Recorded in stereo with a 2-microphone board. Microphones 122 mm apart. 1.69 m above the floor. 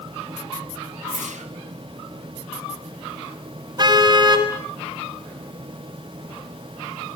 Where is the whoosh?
80° right, 2 m.